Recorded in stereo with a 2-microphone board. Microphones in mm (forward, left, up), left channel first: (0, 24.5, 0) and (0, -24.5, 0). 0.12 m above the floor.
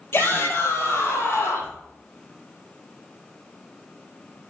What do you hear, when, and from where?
0.1 s a shout: 55° left (ahead or behind), 3 m; by 1.8 s 75° left (ahead or behind), 3.5 m